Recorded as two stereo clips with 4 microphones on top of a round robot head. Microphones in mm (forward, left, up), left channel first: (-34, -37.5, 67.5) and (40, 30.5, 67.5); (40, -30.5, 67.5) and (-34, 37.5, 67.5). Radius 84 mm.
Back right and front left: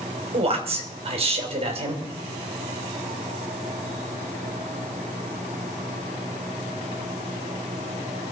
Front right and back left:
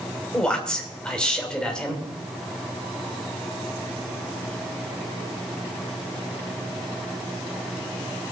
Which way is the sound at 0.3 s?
40° left.